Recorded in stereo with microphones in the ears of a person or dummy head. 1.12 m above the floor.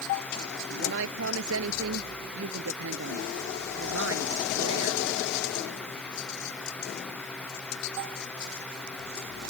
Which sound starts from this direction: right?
A woman speaking, at 0.7 s.